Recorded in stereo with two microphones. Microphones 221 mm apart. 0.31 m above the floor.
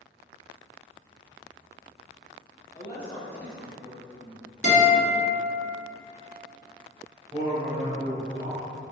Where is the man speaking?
25° right (ahead or behind), 1.3 m.